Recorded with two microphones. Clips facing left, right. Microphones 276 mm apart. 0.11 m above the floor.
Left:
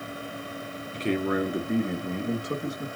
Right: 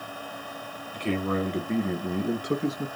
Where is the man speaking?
25° left (ahead or behind), 1.3 m; by 2.9 s 30° right (ahead or behind), 1.4 m.